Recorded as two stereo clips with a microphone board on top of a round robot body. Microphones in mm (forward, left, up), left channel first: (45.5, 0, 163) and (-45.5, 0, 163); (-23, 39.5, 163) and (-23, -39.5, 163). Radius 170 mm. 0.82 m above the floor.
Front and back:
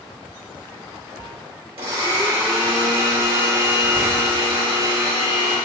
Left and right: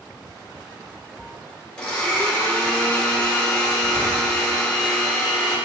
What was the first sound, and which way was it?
A blender, 165° left.